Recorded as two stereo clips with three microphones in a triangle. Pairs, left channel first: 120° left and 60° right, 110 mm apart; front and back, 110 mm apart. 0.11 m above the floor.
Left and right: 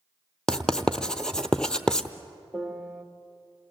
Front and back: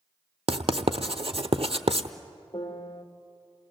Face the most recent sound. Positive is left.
turn(degrees=40)